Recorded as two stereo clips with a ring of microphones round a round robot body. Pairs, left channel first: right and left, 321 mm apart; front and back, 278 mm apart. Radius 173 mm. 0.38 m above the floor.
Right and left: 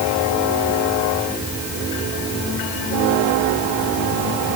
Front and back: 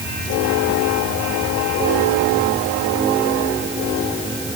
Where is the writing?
No writing in this recording.